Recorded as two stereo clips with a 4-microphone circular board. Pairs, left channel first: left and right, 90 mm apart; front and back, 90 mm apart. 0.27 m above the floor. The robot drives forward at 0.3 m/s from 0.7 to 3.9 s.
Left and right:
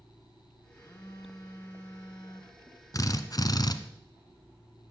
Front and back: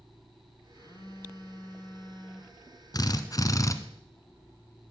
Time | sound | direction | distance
0.8 | a phone buzzing | 40° left | 1.6 m
2.9 | a drill | 40° left | 1.2 m